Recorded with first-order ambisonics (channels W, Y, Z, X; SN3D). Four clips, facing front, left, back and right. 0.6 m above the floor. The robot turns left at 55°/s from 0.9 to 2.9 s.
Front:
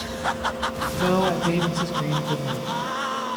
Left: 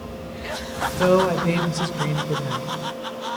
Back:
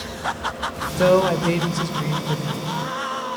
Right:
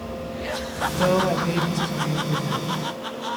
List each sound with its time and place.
1.0 s a woman speaking: 175° left, 2.5 m; by 2.7 s 75° left, 2.5 m